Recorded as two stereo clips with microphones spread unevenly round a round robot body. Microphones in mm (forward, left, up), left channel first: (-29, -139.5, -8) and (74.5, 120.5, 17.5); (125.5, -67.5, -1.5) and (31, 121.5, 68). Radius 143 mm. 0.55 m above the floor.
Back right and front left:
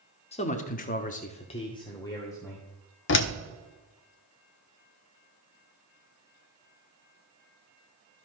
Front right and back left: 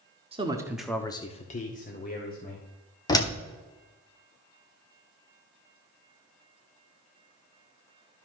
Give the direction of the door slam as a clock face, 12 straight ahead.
4 o'clock.